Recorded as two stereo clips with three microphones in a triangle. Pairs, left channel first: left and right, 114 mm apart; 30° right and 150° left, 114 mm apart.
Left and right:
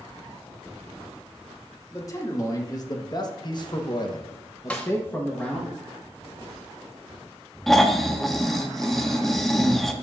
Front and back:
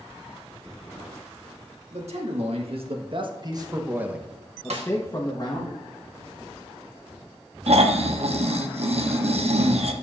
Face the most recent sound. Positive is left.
turn(degrees=175)